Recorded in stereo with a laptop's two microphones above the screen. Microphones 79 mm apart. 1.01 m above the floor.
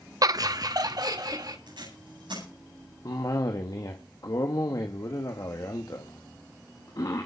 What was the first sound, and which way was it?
Laughter, 50° right (ahead or behind).